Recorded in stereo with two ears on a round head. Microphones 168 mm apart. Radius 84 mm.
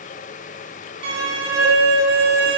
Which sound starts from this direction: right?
A violin, at 1.0 s.